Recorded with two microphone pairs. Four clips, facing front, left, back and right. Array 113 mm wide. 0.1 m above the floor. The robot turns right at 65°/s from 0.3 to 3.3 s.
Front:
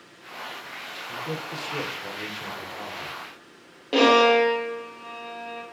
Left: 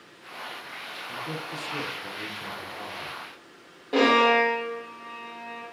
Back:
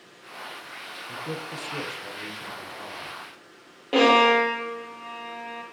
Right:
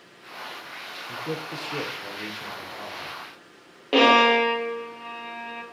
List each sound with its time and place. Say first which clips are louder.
1.1 s a man speaking: right 3 dB, front 1 dB; 125° right, 1.6 m; by 3.2 s 15° left, 1.6 m
3.9 s a violin: right 2 dB, front 1 dB; 80° right, 2 m